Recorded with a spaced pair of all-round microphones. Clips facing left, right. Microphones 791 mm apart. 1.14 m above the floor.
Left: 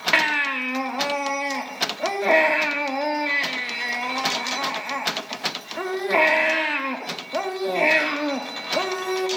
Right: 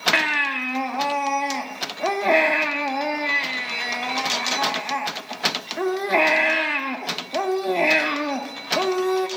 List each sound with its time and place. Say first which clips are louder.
0.1 s a baby crying: even; 5° left (ahead or behind), 0.9 m